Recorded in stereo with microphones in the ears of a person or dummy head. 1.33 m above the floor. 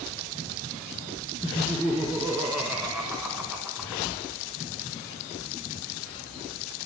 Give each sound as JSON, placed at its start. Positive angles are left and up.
{"t": 1.4, "sound": "laughter", "side_deg": 5, "distance_m": 1.8}